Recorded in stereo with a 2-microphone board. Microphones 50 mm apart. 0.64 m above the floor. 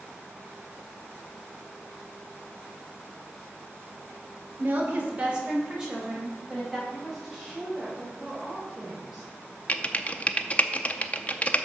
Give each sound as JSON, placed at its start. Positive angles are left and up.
{"t": 4.6, "sound": "a woman speaking", "side_deg": -35, "distance_m": 2.0}
{"t": 6.9, "sound": "a woman speaking", "side_deg": -5, "distance_m": 2.5}
{"t": 9.7, "sound": "typing on a keyboard", "side_deg": 30, "distance_m": 0.5}